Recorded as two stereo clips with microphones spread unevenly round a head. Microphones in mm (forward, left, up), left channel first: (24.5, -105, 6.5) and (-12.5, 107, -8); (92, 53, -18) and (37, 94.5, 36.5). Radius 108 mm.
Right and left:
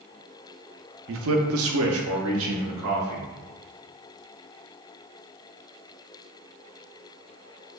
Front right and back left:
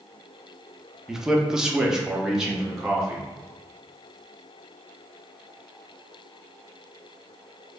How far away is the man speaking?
About 0.5 m.